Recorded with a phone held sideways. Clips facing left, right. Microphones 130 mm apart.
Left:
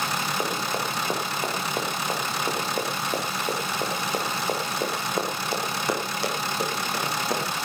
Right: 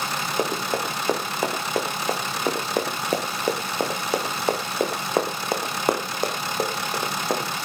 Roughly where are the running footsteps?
Right.